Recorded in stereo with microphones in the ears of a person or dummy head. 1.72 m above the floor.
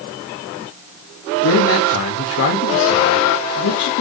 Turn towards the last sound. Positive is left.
turn(degrees=75)  # may be behind; listen again after turning